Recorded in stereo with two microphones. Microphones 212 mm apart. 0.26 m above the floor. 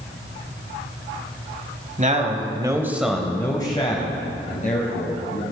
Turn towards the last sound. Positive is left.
turn(degrees=45)  # may be behind; listen again after turning